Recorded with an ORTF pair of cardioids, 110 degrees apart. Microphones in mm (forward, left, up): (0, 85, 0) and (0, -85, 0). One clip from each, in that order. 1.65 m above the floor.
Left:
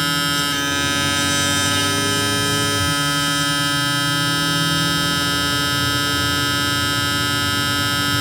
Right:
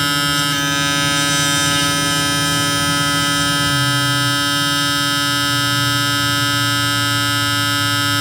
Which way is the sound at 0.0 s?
20° right.